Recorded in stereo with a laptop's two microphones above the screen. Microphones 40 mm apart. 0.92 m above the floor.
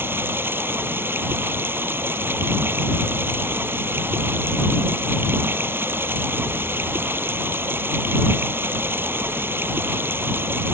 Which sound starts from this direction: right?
Running water, at 0.0 s.